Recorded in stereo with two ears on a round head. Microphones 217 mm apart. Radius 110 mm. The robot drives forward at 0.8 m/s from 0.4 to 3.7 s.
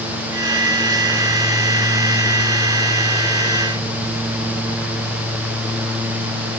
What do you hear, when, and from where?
Only background noise.